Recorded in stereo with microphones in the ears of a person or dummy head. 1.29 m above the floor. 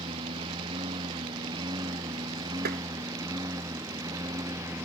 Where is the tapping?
50° right (ahead or behind).